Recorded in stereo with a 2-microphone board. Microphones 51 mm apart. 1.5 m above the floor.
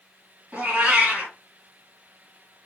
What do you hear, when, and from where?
0.5 s a cat meowing: 20° right (ahead or behind), 1.9 m